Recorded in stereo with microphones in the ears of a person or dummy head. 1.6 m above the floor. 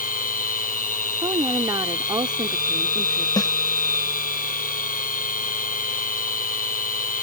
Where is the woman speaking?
25° right (ahead or behind).